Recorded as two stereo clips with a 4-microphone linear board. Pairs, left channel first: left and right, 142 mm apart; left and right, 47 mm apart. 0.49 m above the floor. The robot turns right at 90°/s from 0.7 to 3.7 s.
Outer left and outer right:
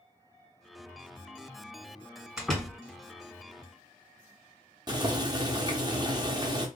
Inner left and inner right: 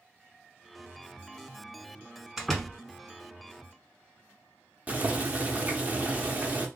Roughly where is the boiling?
Right.